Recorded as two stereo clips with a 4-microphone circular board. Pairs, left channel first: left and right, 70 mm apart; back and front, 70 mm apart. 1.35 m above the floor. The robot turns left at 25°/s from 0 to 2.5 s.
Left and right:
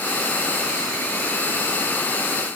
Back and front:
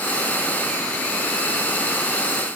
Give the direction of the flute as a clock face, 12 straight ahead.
I don't hear a flute.